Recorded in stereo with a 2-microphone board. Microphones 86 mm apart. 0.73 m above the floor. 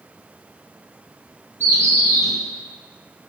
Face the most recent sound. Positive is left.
turn(degrees=-35)  # may be behind; listen again after turning